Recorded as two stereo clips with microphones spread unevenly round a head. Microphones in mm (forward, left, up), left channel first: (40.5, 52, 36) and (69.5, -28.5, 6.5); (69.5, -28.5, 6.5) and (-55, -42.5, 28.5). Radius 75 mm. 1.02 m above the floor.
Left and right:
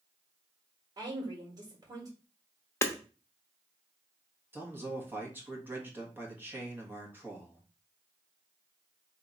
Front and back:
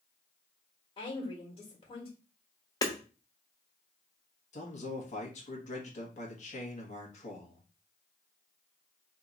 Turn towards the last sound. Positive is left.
turn(degrees=-10)